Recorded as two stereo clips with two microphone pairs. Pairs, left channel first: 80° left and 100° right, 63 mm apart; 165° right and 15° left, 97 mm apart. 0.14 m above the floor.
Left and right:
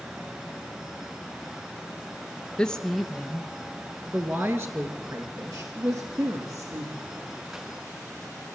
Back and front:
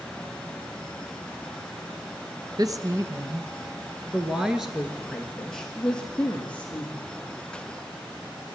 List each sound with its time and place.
2.6 s a woman speaking: 10° left, 1.9 m; by 7.1 s 90° right, 4.5 m